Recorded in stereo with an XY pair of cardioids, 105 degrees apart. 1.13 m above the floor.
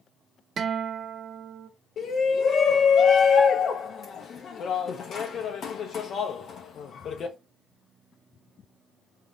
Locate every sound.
0.6 s a guitar: 50° right, 0.6 m
2.0 s a shout: 55° left, 0.5 m